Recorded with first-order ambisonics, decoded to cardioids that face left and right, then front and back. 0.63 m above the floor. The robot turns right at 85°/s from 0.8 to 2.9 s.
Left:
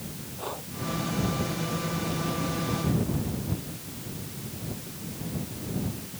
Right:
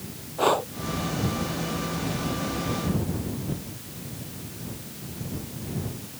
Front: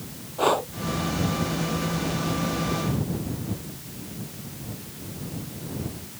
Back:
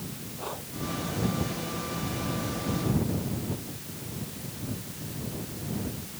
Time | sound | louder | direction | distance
0.4 | breathing | right 15 dB, front 16 dB | 45° right | ?